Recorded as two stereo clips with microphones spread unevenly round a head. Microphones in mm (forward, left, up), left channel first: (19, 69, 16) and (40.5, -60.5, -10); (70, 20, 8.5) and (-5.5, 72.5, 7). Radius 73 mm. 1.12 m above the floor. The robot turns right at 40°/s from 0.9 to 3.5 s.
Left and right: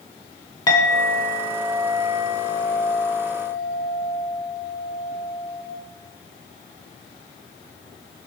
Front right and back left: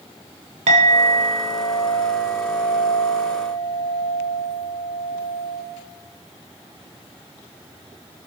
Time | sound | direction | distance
0.7 | a clink | 160° left | 2 m